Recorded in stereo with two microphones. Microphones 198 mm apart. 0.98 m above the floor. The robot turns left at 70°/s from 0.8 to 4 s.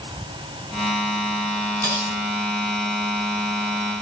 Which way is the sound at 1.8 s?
20° right (ahead or behind).